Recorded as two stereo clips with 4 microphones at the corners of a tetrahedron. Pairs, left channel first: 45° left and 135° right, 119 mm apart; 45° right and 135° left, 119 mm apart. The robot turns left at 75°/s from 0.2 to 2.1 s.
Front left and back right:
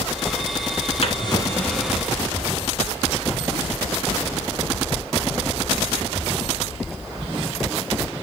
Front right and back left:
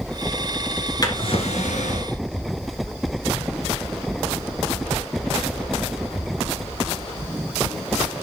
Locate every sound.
1.0 s a drawer: 15° left, 1.6 m; by 2.1 s 70° right, 1.6 m